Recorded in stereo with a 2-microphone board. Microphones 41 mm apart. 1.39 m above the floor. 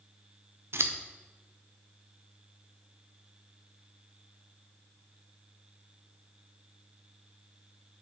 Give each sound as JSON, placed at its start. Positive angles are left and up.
{"t": 0.7, "sound": "scissors", "side_deg": -75, "distance_m": 0.6}